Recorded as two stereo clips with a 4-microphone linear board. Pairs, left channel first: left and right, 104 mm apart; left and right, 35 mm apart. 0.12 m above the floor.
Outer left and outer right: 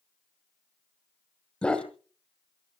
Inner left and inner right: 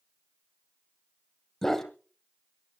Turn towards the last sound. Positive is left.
turn(degrees=10)  # may be behind; listen again after turning